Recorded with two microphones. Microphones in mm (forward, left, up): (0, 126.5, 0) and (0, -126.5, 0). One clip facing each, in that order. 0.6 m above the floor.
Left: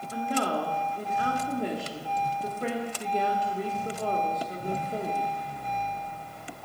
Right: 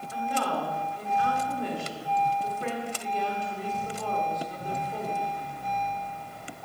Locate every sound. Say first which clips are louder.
0.1 s a woman speaking: left 2 dB; 40° left (ahead or behind), 1.5 m